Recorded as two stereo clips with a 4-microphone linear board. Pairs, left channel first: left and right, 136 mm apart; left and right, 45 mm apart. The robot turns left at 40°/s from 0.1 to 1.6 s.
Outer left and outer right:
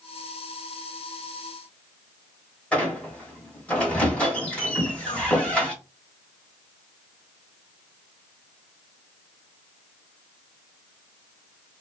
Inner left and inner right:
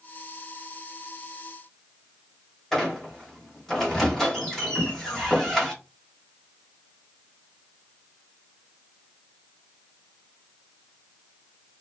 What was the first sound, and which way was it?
A squeak, 10° left (ahead or behind).